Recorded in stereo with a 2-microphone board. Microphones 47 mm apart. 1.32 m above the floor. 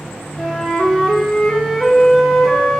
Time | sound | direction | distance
0.4 | a flute | centre (ahead or behind) | 1.1 m